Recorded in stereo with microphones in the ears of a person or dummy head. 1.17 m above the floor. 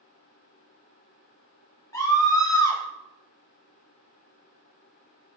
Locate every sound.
1.9 s a scream: 15° left (ahead or behind), 1.5 m